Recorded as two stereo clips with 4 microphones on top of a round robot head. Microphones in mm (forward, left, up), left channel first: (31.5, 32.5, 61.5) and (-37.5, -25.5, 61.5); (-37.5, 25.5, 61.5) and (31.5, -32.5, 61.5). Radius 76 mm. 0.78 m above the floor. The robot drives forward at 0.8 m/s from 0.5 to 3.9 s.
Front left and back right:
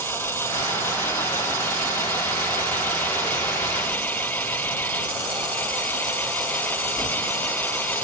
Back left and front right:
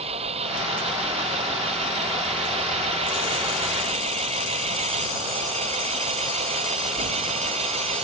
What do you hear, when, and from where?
0.0 s an engine running: 25° right; by 8.0 s 30° right